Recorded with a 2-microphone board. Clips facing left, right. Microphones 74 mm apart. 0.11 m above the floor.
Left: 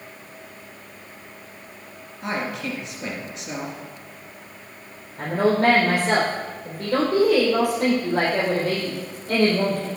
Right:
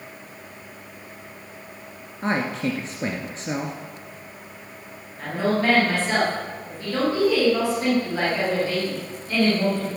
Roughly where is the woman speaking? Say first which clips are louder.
Left 3 dB; left.